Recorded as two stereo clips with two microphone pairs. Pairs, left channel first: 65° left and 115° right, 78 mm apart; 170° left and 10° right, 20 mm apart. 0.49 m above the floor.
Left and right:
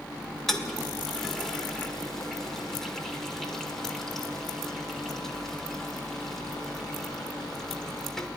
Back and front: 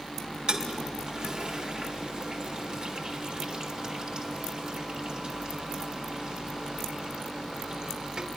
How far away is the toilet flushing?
About 1.7 m.